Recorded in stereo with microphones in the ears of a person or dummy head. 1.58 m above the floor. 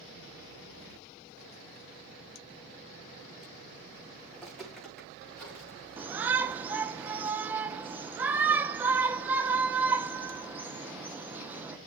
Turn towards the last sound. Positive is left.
turn(degrees=-10)  # may be behind; listen again after turning